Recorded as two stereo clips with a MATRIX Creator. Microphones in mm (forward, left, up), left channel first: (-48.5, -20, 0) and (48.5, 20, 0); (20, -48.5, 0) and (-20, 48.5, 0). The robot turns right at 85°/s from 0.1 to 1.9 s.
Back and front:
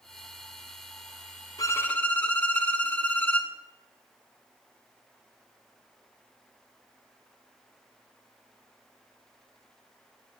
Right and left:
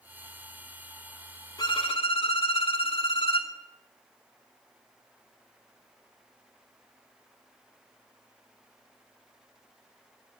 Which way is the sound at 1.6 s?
110° right.